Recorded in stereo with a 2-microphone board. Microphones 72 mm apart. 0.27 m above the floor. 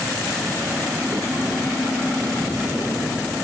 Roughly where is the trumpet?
No trumpet in this recording.